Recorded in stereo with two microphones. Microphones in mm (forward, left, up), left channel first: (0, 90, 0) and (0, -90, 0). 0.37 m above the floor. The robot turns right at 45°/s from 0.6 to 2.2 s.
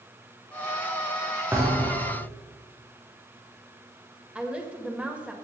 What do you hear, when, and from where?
1.5 s a thud: 170° right, 5 m; by 2.2 s 135° right, 5 m
4.3 s a woman speaking: 5° right (ahead or behind), 1.8 m